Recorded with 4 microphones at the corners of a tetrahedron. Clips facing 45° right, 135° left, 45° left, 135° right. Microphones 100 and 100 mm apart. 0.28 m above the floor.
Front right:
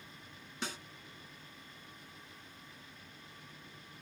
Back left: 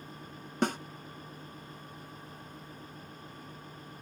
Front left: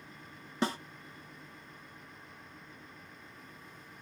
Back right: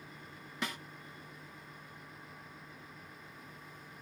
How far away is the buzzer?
No buzzer in this recording.